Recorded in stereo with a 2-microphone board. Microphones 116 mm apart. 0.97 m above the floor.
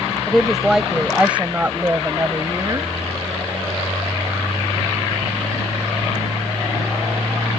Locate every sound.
0.3 s a woman speaking: 5° left (ahead or behind); by 2.9 s 30° right (ahead or behind)